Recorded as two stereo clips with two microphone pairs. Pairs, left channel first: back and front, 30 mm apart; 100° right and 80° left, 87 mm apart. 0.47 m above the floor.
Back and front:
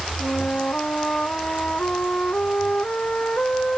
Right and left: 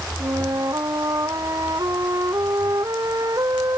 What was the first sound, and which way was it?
A flute, 130° left.